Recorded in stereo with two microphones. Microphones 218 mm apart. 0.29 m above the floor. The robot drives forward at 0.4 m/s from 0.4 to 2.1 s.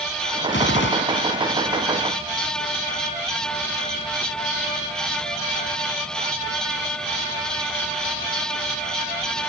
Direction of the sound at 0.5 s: 60° left (ahead or behind).